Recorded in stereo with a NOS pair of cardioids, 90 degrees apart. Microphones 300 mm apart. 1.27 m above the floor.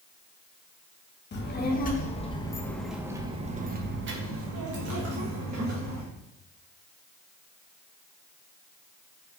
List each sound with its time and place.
1.3 s a child speaking: 40° left, 1.3 m; by 6.0 s 75° right, 1.8 m